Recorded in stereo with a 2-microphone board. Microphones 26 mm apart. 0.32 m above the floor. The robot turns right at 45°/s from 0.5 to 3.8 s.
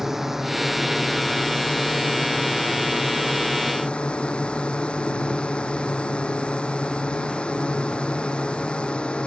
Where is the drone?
15° right; by 9.3 s 135° left.